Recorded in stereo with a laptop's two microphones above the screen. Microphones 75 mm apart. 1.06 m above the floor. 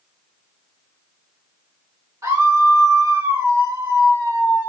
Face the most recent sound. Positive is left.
turn(degrees=-45)  # may be behind; listen again after turning